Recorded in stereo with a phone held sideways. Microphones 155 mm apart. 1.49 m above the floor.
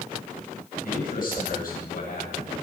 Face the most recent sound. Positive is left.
turn(degrees=70)  # may be behind; listen again after turning